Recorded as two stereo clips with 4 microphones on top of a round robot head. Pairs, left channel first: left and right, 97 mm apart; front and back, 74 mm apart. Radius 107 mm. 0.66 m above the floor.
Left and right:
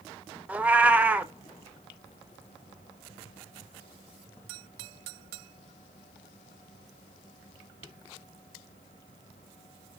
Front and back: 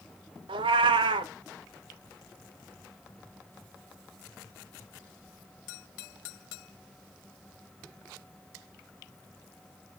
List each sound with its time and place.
0.5 s a cat meowing: 165° right, 0.6 m